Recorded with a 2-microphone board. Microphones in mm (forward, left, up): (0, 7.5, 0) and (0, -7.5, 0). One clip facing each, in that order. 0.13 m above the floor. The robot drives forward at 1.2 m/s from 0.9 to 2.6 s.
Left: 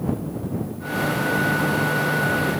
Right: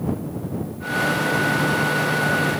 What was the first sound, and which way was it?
Only background noise.